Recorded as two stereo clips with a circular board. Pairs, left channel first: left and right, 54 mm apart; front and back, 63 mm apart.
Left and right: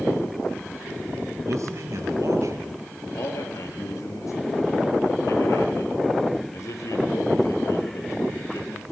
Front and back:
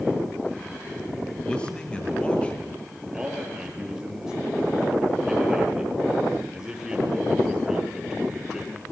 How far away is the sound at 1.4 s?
About 6 m.